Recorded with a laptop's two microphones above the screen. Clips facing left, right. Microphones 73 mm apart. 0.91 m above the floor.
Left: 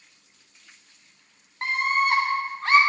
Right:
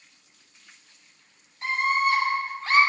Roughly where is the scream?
Left.